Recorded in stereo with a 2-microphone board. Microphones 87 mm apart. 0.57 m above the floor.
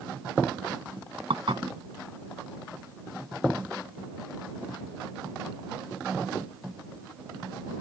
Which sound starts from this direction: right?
Dishes clattering, at 1.3 s.